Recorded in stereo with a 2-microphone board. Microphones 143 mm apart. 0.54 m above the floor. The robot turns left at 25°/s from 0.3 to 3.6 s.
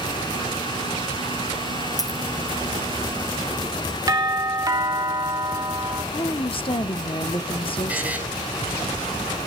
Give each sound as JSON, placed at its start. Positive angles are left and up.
{"t": 2.0, "sound": "a dropped coin", "side_deg": 25, "distance_m": 2.0}
{"t": 4.1, "sound": "a doorbell", "side_deg": -25, "distance_m": 2.0}
{"t": 6.1, "sound": "a woman speaking", "side_deg": 40, "distance_m": 0.9}
{"t": 7.9, "sound": "a buzzer", "side_deg": -10, "distance_m": 3.5}